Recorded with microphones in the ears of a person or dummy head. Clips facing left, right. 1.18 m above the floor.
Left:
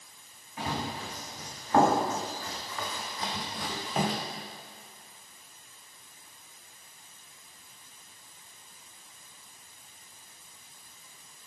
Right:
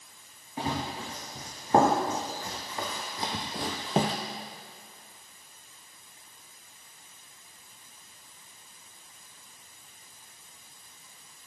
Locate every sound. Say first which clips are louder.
0.6 s running footsteps: right 2 dB; 30° right (ahead or behind), 4.5 m